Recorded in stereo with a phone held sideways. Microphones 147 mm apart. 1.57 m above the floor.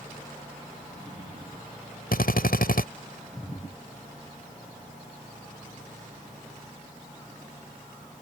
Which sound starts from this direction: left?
A drill, at 2.1 s.